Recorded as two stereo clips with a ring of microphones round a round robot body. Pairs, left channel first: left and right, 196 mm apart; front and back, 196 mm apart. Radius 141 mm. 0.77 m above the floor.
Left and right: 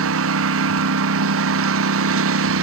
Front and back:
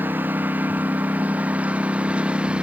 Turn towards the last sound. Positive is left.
turn(degrees=-95)